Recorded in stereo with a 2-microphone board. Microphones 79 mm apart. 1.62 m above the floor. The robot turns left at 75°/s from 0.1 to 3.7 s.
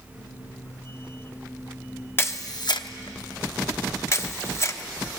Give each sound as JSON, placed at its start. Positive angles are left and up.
{"t": 2.2, "sound": "a camera shutter", "side_deg": 30, "distance_m": 0.9}